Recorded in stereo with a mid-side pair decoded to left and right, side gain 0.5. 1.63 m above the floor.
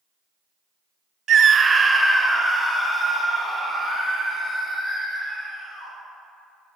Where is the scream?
55° right, 0.5 m; by 5.9 s straight ahead, 6 m.